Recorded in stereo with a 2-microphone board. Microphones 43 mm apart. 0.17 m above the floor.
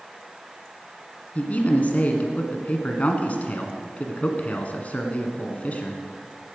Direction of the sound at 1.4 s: 35° left (ahead or behind).